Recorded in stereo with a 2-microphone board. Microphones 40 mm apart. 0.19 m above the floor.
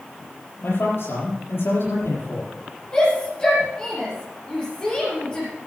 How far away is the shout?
About 5 m.